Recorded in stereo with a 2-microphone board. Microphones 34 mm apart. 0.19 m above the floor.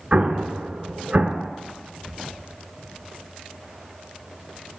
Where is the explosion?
45° right (ahead or behind), 0.6 m.